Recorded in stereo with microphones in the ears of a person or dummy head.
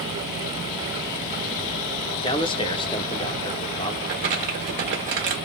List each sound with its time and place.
2.2 s a man speaking: 25° left (ahead or behind), 0.5 m
4.0 s crumpling: 35° right (ahead or behind), 1.2 m